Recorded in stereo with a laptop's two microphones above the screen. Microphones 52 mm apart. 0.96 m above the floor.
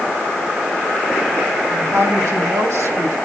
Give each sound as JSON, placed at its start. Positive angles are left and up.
{"t": 1.7, "sound": "a woman speaking", "side_deg": -80, "distance_m": 5.0}